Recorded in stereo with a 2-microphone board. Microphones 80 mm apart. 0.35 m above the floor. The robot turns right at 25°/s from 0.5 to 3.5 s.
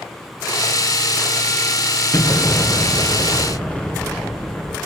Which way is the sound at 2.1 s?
130° left.